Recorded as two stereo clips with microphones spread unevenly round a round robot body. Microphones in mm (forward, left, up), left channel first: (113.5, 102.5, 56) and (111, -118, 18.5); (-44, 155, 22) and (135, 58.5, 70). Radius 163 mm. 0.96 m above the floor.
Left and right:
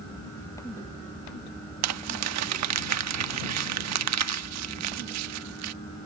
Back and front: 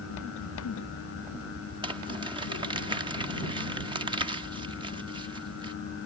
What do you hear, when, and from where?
1.8 s crumpling: 100° right